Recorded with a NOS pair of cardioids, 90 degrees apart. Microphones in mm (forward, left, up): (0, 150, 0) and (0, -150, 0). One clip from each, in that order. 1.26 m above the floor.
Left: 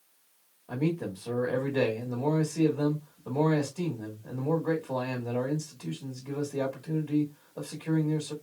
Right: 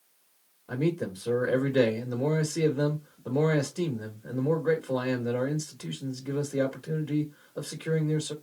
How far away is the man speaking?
About 1.4 m.